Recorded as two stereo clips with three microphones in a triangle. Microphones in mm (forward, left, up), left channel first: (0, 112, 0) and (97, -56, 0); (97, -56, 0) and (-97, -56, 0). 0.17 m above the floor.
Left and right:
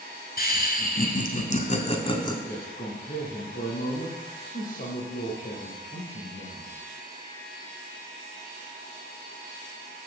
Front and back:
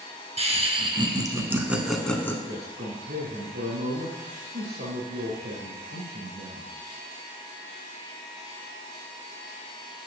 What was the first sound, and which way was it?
Laughter, 135° left.